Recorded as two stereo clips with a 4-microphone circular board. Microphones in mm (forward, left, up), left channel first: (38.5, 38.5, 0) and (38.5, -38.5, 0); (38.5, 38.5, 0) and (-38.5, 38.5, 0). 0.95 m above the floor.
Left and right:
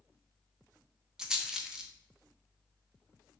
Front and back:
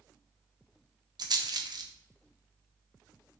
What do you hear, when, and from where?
1.2 s a rattle: 170° right, 0.5 m